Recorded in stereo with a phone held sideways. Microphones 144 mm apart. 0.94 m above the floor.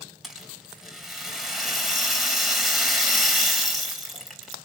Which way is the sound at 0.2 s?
Centre (ahead or behind).